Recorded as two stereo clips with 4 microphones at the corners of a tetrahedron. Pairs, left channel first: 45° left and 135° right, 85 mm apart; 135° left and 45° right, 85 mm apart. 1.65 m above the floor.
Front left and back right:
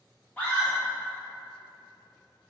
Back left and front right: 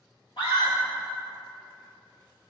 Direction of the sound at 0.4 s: 115° left.